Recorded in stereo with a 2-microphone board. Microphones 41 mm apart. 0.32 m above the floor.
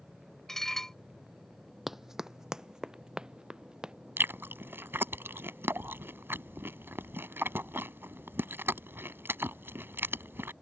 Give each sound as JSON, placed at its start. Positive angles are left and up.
{"t": 0.5, "sound": "dishes clattering", "side_deg": 10}
{"t": 1.9, "sound": "running footsteps", "side_deg": -10}
{"t": 4.2, "sound": "chewing", "side_deg": -70}